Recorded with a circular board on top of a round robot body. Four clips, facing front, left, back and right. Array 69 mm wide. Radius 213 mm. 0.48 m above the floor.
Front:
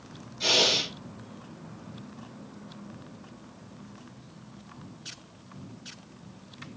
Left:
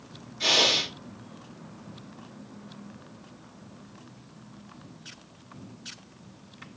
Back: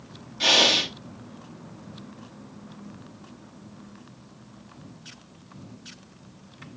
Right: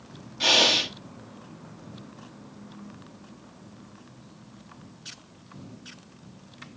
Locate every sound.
0.4 s breathing: 155° right, 2 m